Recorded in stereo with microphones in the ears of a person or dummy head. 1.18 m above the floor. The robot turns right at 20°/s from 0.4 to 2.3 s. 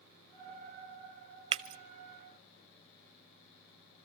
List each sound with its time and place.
1.5 s breaking glass: 35° right (ahead or behind), 0.5 m; by 1.8 s 40° right (ahead or behind), 0.5 m